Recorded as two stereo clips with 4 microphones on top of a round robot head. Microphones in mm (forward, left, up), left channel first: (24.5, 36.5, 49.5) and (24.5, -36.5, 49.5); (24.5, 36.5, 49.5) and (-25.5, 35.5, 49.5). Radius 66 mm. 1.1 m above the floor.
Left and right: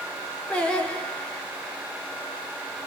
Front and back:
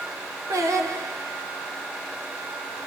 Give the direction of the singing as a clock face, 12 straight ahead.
6 o'clock.